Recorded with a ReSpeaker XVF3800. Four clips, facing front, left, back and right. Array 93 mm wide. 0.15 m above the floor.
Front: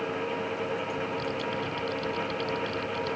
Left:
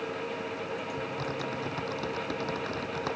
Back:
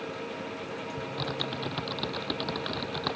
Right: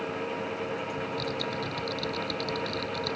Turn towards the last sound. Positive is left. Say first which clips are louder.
# right 2 dB, front 3 dB
turn(degrees=155)